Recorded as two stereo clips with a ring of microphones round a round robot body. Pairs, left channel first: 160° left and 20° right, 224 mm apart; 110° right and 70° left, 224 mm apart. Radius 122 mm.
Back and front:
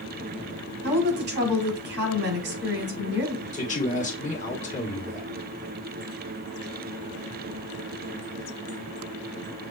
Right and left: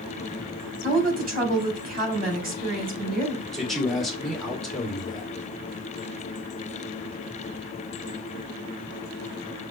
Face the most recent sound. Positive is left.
turn(degrees=160)